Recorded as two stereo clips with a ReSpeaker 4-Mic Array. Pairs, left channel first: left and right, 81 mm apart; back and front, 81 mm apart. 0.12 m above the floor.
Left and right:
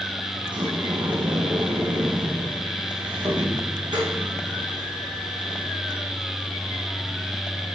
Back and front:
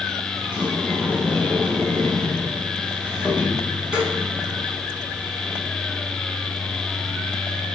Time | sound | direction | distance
0.4 | a sliding door | 75° right | 2.5 m